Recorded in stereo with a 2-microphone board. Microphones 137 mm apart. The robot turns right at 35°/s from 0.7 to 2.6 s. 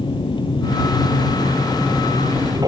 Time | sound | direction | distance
0.0 | an aircraft | 35° left (ahead or behind) | ?